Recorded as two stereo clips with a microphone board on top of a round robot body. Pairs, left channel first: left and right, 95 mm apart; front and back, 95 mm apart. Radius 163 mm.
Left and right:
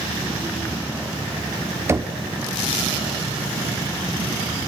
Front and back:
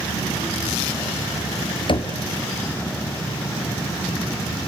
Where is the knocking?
30° right, 1.5 m.